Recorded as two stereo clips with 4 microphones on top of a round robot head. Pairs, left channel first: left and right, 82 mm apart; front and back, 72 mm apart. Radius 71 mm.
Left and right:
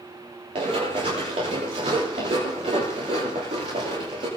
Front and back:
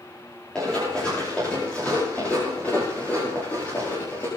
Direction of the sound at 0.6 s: 80° right.